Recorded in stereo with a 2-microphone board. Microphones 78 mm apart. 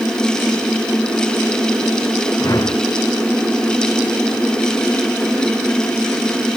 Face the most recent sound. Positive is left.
turn(degrees=50)  # may be behind; listen again after turning